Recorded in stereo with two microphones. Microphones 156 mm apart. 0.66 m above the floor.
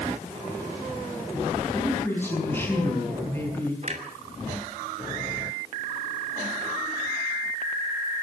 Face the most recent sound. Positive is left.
turn(degrees=-50)  # may be behind; listen again after turning